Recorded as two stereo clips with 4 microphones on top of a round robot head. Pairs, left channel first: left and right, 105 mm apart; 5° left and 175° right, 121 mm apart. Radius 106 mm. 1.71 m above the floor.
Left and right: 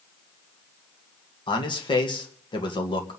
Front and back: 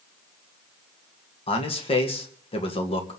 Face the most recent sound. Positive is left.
turn(degrees=45)